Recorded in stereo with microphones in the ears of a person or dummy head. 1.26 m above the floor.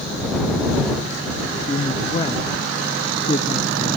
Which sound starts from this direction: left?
A woman speaking, at 1.7 s.